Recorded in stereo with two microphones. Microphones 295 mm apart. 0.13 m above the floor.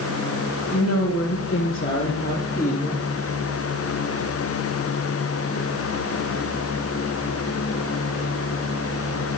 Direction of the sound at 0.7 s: 55° left (ahead or behind).